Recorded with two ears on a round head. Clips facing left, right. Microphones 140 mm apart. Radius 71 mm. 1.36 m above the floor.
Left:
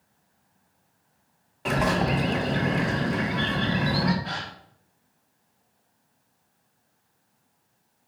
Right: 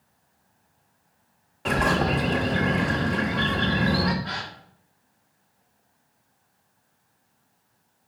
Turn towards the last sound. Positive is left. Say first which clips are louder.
# even
turn(degrees=30)  # may be behind; listen again after turning